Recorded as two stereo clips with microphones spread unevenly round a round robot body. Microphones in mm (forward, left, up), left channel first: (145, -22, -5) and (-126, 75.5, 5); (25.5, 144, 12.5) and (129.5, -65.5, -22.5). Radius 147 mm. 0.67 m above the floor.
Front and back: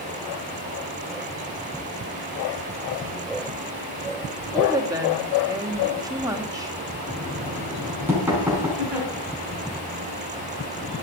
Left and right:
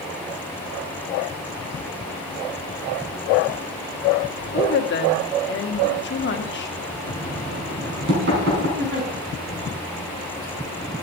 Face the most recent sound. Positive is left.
turn(degrees=-115)